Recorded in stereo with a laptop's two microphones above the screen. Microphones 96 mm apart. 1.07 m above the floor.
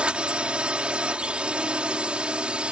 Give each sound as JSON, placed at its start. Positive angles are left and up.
{"t": 0.0, "sound": "a drone", "side_deg": -10}